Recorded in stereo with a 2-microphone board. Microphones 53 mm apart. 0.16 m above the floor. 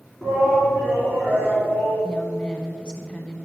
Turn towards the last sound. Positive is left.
turn(degrees=20)  # may be behind; listen again after turning